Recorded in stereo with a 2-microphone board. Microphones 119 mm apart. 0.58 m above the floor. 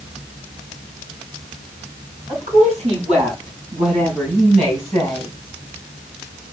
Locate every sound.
2.3 s a woman speaking: 80° right, 5.5 m; by 5.3 s 65° right (ahead or behind), 4 m